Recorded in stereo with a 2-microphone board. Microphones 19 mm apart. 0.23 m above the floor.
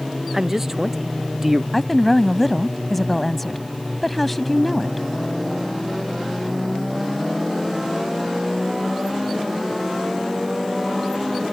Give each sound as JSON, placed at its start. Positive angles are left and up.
{"t": 0.3, "sound": "a man speaking", "side_deg": -15}
{"t": 1.7, "sound": "a woman speaking", "side_deg": 10}